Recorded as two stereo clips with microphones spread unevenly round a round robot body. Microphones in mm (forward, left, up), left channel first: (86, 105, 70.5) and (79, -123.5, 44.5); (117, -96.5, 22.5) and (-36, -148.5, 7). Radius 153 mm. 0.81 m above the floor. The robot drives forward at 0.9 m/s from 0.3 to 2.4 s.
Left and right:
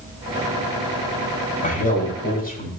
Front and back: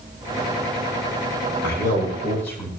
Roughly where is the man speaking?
Ahead left.